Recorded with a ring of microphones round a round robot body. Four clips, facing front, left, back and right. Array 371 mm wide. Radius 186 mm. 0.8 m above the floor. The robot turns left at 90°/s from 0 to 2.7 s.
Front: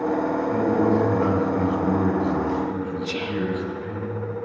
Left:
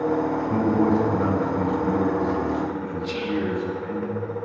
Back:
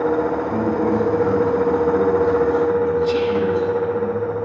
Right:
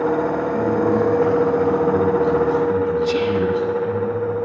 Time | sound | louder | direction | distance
0.5 | a man speaking | right 1 dB, front 1 dB | 115° left | 7.5 m
3.0 | whispering | right 7 dB, back 9 dB | 65° right | 2.5 m